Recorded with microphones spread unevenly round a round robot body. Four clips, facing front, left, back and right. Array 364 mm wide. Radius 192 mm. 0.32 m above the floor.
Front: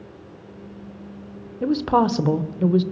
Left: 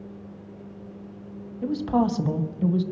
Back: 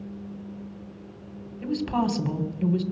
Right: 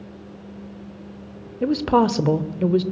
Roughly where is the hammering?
No hammering in this recording.